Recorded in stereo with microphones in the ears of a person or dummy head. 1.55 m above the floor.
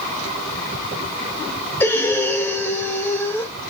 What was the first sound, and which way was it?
Breathing, 15° left (ahead or behind).